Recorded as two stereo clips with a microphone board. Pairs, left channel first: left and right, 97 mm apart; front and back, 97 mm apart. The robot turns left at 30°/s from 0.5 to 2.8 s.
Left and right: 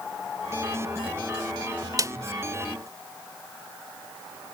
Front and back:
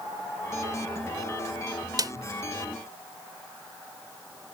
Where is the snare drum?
140° right.